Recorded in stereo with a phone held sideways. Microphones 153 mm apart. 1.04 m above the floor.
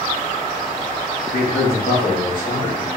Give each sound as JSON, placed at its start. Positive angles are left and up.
{"t": 1.3, "sound": "a man speaking", "side_deg": 75, "distance_m": 2.5}